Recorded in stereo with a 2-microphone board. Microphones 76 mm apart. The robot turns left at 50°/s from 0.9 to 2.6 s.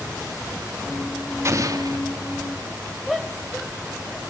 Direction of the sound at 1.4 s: 35° right (ahead or behind).